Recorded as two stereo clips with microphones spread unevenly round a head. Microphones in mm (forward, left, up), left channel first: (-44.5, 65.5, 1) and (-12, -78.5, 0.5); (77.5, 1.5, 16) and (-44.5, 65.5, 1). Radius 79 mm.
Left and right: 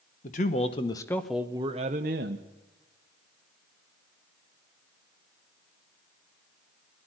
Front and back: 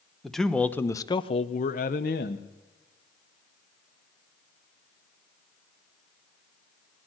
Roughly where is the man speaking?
Ahead left.